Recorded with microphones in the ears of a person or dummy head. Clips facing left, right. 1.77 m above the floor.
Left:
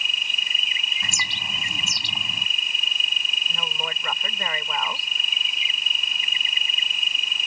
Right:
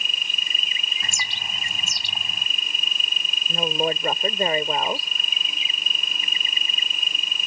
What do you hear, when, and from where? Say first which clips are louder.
0.0 s an insect: right 1 dB; 50° right (ahead or behind)
1.0 s a bird: left 1 dB; 90° left
3.5 s a woman speaking: right 11 dB; 35° right (ahead or behind)